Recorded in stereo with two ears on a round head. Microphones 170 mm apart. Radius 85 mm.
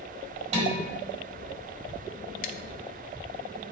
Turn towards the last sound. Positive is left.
turn(degrees=45)  # may be behind; listen again after turning